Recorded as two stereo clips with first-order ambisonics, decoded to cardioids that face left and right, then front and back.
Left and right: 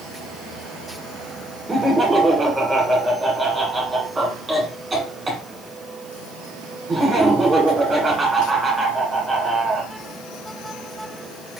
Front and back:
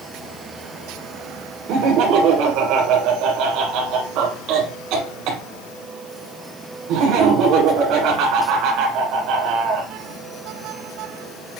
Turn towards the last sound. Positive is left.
turn(degrees=-165)